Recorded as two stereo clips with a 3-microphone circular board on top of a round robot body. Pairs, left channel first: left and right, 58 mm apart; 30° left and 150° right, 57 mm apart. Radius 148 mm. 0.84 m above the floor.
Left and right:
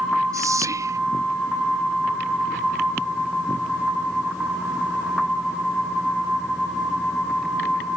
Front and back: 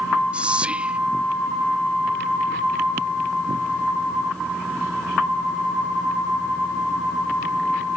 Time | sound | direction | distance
0.3 | whispering | 80° right | ?